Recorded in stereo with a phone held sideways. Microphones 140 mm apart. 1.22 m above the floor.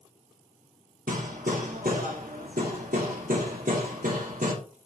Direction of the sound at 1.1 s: 85° right.